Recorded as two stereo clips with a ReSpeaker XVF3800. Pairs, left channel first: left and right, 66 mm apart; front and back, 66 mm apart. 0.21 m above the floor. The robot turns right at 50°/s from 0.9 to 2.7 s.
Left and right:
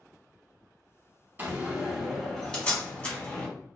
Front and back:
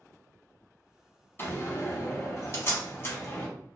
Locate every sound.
1.4 s a door slam: 40° right, 0.9 m; by 3.5 s 30° left, 0.9 m